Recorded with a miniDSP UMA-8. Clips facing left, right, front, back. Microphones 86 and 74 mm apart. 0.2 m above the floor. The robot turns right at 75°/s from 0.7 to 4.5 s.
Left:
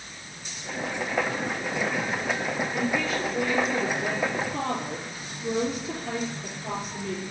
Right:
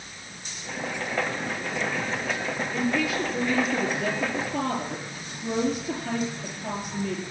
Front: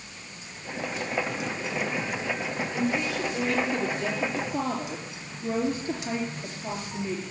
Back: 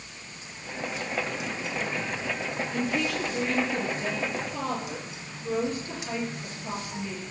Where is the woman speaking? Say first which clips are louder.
Right 3 dB, front 1 dB; 165° left, 4.5 m; by 7.2 s 65° right, 4.5 m.